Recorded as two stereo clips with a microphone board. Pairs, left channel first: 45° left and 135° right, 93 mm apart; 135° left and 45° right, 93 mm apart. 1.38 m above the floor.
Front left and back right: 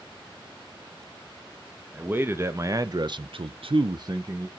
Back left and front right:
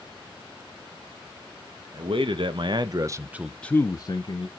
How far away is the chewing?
No chewing in this recording.